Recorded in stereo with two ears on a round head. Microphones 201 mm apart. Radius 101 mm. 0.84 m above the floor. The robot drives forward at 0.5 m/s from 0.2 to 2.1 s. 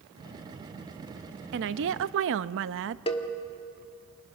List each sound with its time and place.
1.5 s a woman speaking: 50° right (ahead or behind), 0.7 m; by 3.0 s 60° right (ahead or behind), 0.6 m
3.1 s a cowbell: 25° left (ahead or behind), 1.3 m